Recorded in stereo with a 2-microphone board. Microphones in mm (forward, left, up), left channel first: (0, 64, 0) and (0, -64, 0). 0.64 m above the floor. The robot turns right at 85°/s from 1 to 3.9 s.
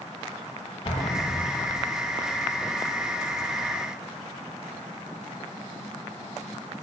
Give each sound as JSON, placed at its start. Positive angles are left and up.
{"t": 0.8, "sound": "an explosion", "azimuth_deg": 45, "distance_m": 7.0}